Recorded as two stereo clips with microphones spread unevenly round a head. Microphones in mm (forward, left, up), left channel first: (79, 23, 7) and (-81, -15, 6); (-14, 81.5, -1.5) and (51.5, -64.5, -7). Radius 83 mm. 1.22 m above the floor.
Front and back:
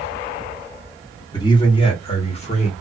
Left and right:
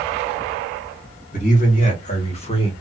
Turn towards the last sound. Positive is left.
turn(degrees=55)